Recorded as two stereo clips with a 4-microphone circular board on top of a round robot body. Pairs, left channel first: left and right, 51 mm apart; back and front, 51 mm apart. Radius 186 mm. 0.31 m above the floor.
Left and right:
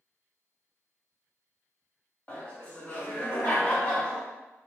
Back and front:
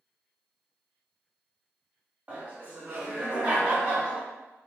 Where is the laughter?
35° left, 1.7 m.